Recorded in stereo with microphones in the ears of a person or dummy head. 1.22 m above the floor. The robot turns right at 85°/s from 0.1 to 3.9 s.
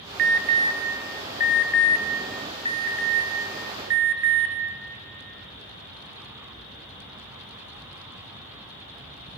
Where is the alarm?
55° right (ahead or behind), 0.9 m; by 4.5 s 65° right (ahead or behind), 0.9 m.